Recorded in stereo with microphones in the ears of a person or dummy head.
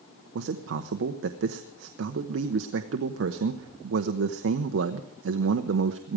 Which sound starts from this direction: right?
A man speaking, at 0.3 s.